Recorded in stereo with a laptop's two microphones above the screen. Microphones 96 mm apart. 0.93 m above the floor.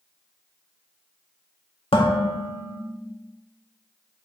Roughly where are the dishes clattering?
Left.